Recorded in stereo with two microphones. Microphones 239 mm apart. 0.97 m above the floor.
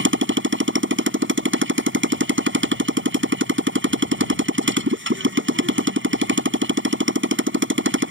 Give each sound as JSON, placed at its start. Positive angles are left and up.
{"t": 0.0, "sound": "a motorcycle", "side_deg": -55}